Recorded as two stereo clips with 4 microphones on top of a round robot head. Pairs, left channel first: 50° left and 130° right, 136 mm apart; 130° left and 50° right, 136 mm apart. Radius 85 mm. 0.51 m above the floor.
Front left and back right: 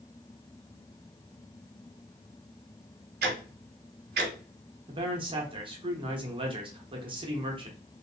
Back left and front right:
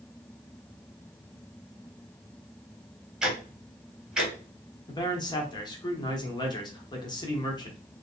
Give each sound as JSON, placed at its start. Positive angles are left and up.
{"t": 3.2, "sound": "ticking", "azimuth_deg": -135, "distance_m": 1.2}
{"t": 4.9, "sound": "a man speaking", "azimuth_deg": -175, "distance_m": 1.2}